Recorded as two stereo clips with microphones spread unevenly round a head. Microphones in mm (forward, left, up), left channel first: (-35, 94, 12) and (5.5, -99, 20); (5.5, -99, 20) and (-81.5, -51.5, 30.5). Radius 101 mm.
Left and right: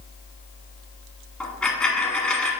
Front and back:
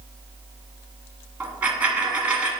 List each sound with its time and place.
1.4 s a dropped coin: 170° right, 1.6 m